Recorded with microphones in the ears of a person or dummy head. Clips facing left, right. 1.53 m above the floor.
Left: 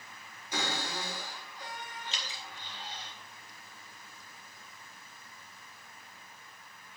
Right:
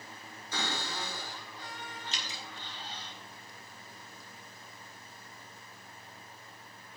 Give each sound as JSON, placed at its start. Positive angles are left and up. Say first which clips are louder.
{"t": 0.5, "sound": "a cupboard door", "louder": "left 2 dB", "side_deg": 15, "distance_m": 4.5}
{"t": 2.1, "sound": "dripping", "louder": "right 1 dB", "side_deg": -50, "distance_m": 3.0}